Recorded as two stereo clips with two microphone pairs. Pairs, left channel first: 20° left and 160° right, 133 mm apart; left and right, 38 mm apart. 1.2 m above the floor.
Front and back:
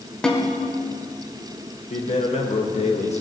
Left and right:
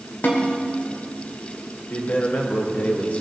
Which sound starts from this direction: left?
A snare drum, at 0.2 s.